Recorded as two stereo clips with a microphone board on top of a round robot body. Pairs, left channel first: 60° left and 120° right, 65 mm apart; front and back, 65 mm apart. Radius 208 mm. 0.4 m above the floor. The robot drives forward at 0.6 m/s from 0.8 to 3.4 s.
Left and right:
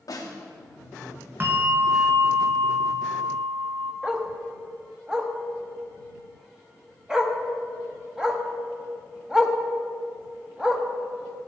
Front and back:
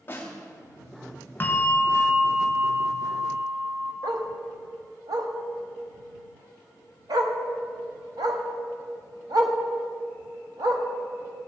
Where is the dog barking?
160° left, 1.4 m.